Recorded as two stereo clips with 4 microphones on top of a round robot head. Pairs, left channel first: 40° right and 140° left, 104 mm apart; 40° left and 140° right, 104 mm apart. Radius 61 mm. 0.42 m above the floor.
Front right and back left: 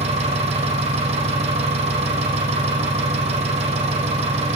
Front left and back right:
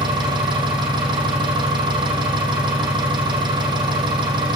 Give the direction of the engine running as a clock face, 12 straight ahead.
6 o'clock.